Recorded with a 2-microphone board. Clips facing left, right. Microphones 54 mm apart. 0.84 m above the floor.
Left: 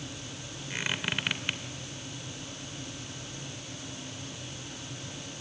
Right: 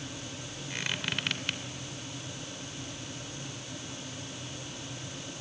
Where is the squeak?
15° left (ahead or behind), 2.5 m.